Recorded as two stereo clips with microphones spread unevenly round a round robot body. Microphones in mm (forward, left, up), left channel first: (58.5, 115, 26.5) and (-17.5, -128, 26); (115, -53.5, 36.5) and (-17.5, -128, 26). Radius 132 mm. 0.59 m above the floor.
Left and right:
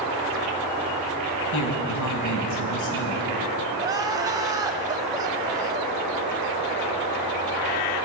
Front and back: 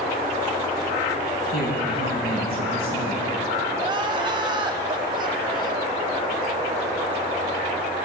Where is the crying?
175° right, 1.1 m.